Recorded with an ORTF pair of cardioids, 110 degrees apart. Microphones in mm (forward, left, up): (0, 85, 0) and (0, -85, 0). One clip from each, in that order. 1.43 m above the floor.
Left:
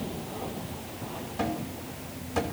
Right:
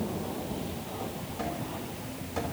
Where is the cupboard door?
35° left, 3 m.